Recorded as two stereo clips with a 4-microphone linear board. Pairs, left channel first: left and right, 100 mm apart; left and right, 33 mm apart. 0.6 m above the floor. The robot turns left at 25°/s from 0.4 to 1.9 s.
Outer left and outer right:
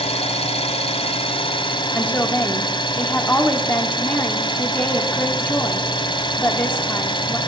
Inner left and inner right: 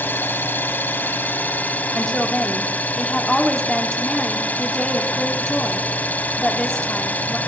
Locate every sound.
0.0 s an engine running: 90° left, 1.6 m; by 7.5 s 55° left, 1.6 m
1.9 s a woman speaking: 15° left (ahead or behind), 1.6 m